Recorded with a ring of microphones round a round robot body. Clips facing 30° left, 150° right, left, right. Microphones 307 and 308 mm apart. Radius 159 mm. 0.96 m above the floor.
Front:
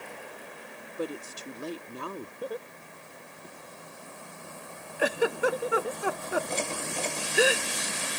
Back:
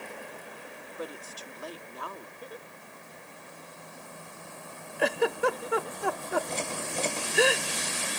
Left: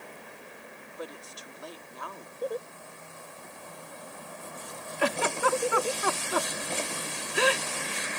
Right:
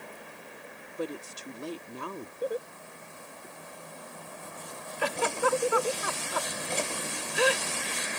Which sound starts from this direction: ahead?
Laughter, at 2.4 s.